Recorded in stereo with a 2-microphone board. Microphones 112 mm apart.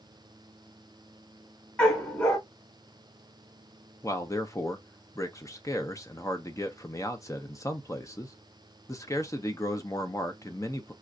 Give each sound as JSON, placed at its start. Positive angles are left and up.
{"t": 1.8, "sound": "a dog barking", "side_deg": 15, "distance_m": 2.0}
{"t": 4.0, "sound": "a man speaking", "side_deg": 30, "distance_m": 0.7}